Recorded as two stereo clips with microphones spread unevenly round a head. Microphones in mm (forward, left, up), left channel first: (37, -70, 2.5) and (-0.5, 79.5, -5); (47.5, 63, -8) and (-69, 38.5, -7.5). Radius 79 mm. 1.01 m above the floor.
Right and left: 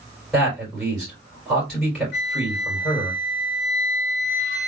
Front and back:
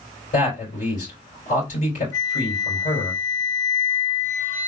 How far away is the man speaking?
About 3 m.